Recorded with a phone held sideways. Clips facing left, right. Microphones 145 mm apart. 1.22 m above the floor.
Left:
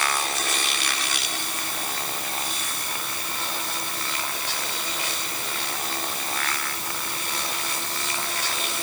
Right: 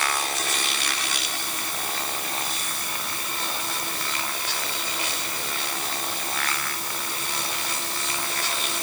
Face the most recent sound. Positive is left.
No sound to turn to.